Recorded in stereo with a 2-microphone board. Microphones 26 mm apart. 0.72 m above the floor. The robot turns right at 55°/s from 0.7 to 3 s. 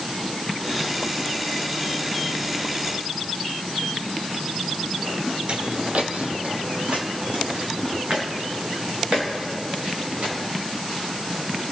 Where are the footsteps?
50° right (ahead or behind), 1.0 m; by 10.3 s 55° right (ahead or behind), 6.5 m.